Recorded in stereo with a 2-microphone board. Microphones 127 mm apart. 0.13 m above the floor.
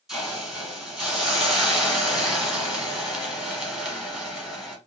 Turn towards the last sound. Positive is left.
turn(degrees=0)  # may be behind; listen again after turning